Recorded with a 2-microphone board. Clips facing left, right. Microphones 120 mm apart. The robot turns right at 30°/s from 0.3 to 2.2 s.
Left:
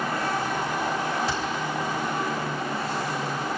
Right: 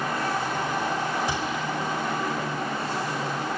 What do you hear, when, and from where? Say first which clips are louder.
1.3 s a gunshot: even; 20° right (ahead or behind), 5.5 m; by 1.6 s 10° right (ahead or behind), 5.5 m